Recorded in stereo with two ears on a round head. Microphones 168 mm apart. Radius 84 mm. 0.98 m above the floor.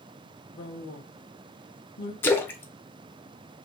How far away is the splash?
About 0.6 m.